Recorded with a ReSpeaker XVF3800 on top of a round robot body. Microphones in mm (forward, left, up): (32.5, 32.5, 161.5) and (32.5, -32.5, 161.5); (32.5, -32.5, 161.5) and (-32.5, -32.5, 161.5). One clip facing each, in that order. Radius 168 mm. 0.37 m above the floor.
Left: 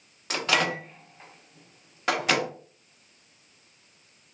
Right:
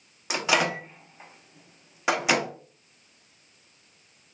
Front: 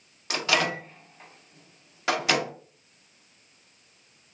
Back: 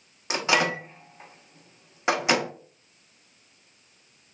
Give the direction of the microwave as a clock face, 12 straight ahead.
5 o'clock.